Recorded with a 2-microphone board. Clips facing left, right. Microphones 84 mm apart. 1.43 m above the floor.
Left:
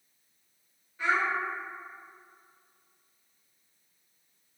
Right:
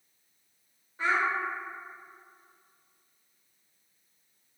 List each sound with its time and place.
1.0 s a child speaking: 35° right (ahead or behind), 0.9 m